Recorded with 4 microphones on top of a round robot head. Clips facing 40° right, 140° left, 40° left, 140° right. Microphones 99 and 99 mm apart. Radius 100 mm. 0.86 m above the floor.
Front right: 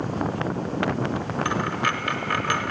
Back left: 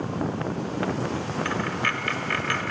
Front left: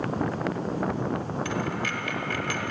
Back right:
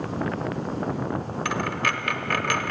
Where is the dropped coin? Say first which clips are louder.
Front right 4 dB, back right 3 dB; 110° right, 0.8 m.